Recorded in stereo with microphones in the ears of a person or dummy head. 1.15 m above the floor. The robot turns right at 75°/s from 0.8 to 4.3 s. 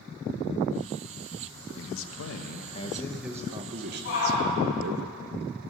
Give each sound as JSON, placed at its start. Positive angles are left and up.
{"t": 1.8, "sound": "a man speaking", "azimuth_deg": 65, "distance_m": 1.2}
{"t": 4.0, "sound": "a shout", "side_deg": 70, "distance_m": 6.5}